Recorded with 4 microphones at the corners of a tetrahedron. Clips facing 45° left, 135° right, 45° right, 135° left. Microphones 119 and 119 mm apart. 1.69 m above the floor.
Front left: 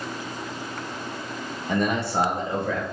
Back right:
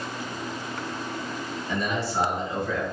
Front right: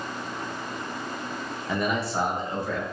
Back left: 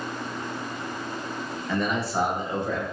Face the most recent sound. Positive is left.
turn(degrees=70)